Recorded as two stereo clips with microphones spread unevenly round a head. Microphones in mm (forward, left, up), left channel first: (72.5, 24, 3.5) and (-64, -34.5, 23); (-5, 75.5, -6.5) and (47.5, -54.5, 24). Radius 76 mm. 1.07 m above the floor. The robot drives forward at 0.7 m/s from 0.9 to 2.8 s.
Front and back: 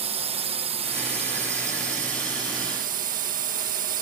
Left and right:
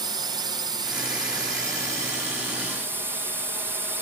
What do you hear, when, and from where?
0.0 s a drone: 130° right; by 4.0 s 150° right